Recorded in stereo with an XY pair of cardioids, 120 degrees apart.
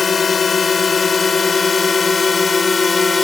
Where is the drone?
30° left; by 3.2 s 20° left.